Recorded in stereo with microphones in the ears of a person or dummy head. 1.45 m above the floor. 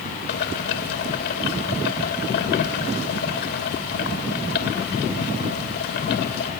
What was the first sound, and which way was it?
Boiling, 60° left (ahead or behind).